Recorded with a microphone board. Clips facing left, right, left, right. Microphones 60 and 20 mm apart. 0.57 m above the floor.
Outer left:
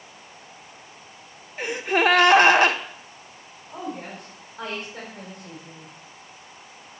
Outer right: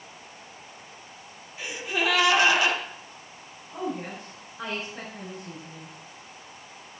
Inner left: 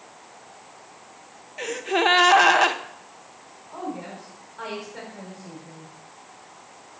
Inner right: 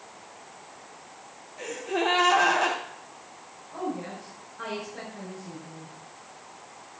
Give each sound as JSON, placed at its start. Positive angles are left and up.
{"t": 1.6, "sound": "a gasp", "side_deg": 50, "distance_m": 0.7}
{"t": 3.7, "sound": "a woman speaking", "side_deg": 45, "distance_m": 3.5}